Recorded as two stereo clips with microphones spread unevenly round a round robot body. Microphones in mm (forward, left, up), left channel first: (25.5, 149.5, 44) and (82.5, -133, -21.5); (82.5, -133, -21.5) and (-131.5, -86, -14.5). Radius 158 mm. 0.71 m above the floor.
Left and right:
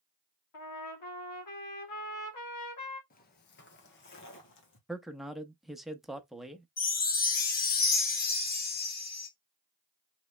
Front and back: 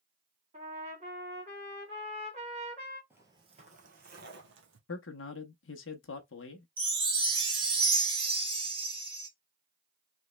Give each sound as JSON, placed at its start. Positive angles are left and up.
{"t": 0.5, "sound": "a trumpet", "azimuth_deg": 105, "distance_m": 1.7}
{"t": 3.1, "sound": "footsteps", "azimuth_deg": 90, "distance_m": 0.8}
{"t": 4.9, "sound": "a man speaking", "azimuth_deg": 0, "distance_m": 0.8}
{"t": 6.8, "sound": "a chime", "azimuth_deg": 140, "distance_m": 1.0}